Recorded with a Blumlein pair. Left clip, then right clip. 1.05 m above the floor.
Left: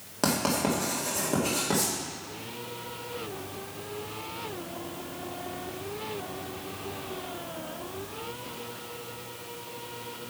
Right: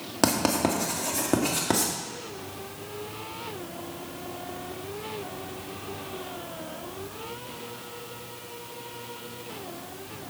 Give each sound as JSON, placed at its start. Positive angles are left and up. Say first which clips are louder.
{"t": 0.2, "sound": "writing", "louder": "right 3 dB", "azimuth_deg": -20, "distance_m": 2.0}